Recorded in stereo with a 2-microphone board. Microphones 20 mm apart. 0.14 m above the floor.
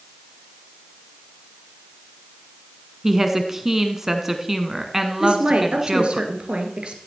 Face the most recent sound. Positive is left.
turn(degrees=-50)  # may be behind; listen again after turning